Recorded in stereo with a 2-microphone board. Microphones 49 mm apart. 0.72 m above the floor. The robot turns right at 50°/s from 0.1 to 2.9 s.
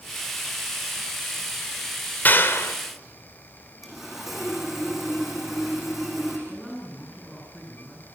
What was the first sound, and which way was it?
A clap, 40° left (ahead or behind).